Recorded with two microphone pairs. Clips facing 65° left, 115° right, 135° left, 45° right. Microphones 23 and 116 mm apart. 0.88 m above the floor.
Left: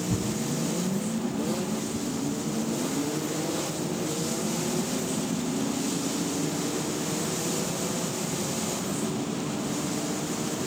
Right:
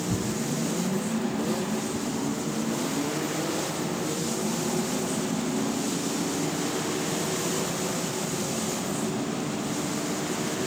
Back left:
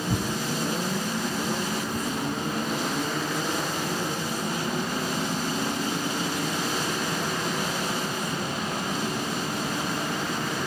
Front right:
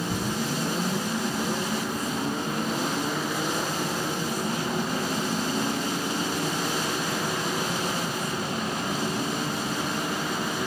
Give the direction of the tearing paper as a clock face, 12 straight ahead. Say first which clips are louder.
Right 1 dB, back left 2 dB; 8 o'clock.